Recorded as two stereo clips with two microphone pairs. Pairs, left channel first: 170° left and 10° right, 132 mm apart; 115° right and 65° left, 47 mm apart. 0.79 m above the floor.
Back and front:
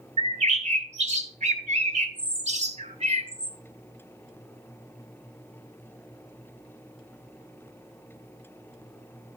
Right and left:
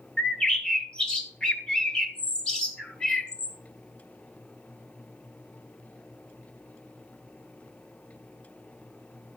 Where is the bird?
40° right, 1.5 m.